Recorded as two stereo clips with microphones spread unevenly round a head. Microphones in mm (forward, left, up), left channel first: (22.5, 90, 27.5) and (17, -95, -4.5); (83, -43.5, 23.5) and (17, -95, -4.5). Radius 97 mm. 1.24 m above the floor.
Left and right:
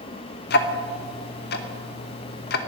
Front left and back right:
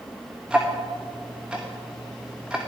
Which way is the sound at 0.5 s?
125° left.